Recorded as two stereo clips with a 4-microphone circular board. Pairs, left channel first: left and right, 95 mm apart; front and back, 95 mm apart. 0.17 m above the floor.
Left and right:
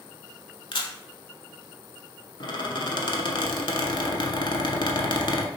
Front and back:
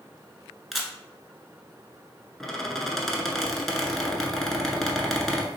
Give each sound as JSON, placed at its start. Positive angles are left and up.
{"t": 0.7, "sound": "a camera shutter", "azimuth_deg": 90, "distance_m": 0.7}
{"t": 2.4, "sound": "a squeak", "azimuth_deg": 90, "distance_m": 0.7}